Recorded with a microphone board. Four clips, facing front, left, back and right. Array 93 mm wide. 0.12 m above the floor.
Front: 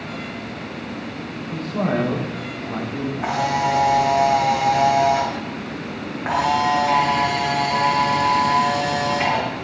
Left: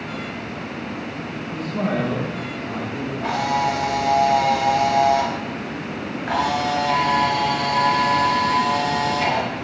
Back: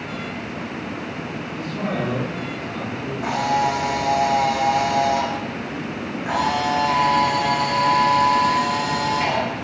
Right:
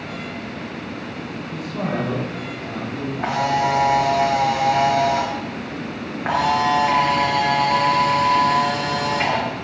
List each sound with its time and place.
1.5 s a man speaking: 20° right, 8.5 m; by 3.1 s 10° right, 9.5 m
3.2 s a camera shutter: 60° right, 7.5 m